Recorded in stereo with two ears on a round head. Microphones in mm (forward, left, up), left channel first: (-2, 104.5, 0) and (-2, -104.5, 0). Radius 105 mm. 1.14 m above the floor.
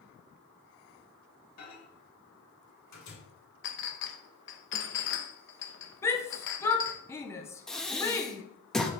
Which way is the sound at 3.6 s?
55° left (ahead or behind).